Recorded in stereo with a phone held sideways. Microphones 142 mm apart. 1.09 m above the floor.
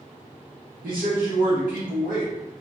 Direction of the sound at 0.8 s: 80° right.